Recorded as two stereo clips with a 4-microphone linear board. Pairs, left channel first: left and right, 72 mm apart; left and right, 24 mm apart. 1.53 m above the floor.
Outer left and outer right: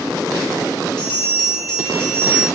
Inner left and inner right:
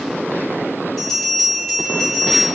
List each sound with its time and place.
1.0 s a bell: 10° left (ahead or behind), 2.5 m